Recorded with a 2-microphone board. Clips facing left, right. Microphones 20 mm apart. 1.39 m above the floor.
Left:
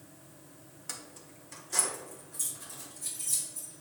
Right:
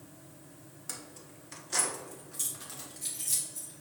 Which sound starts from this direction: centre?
Keys jangling, at 0.9 s.